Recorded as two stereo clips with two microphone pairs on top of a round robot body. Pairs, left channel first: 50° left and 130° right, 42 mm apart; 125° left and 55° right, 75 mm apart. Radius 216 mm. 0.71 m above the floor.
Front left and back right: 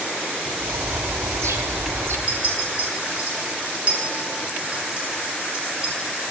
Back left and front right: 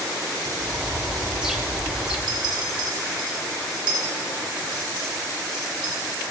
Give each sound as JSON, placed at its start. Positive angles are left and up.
{"t": 0.6, "sound": "a bird", "azimuth_deg": -135, "distance_m": 0.8}
{"t": 2.3, "sound": "a clink", "azimuth_deg": -70, "distance_m": 4.0}